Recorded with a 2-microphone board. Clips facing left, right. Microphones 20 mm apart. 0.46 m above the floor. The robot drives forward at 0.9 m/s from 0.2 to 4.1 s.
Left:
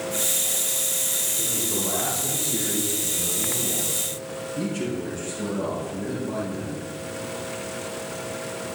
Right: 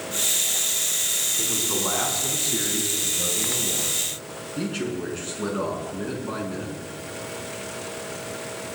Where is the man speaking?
70° right (ahead or behind), 4 m; by 6.8 s 50° right (ahead or behind), 5 m.